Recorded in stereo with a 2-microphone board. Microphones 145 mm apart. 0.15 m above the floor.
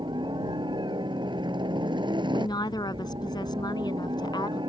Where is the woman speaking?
30° left (ahead or behind).